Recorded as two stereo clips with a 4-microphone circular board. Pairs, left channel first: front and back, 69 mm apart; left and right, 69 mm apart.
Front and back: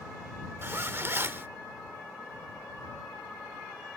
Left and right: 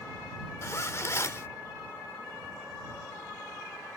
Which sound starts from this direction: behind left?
A zipper, at 0.6 s.